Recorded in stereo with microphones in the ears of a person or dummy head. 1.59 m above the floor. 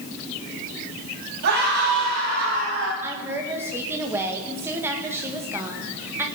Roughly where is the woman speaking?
Centre.